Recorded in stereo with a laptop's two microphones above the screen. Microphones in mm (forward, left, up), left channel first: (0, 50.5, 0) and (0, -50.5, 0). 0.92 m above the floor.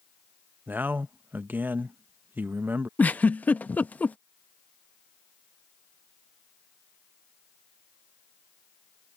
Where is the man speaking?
20° right (ahead or behind).